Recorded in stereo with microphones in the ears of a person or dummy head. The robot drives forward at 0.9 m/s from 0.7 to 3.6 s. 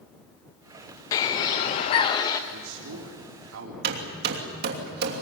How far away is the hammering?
About 3 m.